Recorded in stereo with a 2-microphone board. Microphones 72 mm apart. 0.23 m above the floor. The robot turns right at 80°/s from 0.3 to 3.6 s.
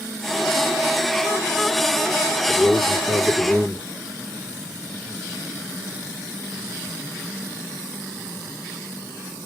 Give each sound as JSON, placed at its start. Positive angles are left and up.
{"t": 2.5, "sound": "a man speaking", "azimuth_deg": 100, "distance_m": 3.5}